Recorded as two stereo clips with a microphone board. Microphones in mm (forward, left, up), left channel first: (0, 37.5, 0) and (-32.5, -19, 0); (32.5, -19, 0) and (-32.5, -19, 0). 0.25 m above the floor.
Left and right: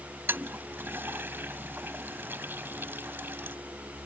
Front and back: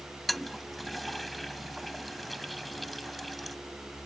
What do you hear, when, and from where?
0.3 s a toilet flushing: 90° right